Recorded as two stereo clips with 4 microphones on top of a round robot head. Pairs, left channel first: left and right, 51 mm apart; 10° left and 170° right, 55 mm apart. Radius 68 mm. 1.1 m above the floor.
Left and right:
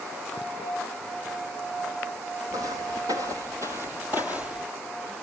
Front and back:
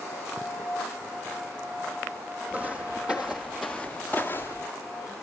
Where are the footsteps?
100° right, 1.8 m; by 4.7 s 30° right, 1.2 m.